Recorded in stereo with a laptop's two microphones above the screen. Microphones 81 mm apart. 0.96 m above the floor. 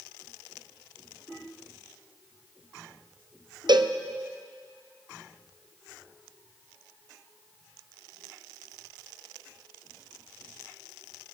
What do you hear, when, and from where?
3.7 s a cowbell: 65° right (ahead or behind), 0.6 m